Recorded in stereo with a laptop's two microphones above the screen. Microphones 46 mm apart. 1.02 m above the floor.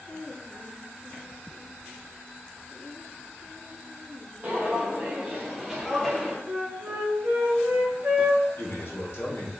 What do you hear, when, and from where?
4.4 s footsteps: 35° right (ahead or behind), 1.8 m; by 6.4 s 10° left (ahead or behind), 1.5 m
6.5 s a flute: 50° right (ahead or behind), 1.3 m
8.6 s a man speaking: 65° left (ahead or behind), 1.3 m